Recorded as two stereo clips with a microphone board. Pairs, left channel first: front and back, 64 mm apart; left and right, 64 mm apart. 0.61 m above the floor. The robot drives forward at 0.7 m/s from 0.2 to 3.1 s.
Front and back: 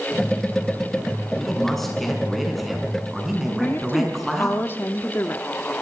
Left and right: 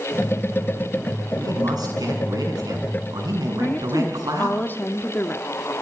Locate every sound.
1.4 s a man speaking: 80° right, 7.5 m; by 4.6 s 90° right, 7.5 m
3.6 s a woman speaking: 45° left, 1.0 m